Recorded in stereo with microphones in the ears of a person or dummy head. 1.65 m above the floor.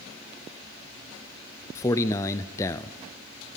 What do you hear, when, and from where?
1.8 s a man speaking: 15° left (ahead or behind), 0.6 m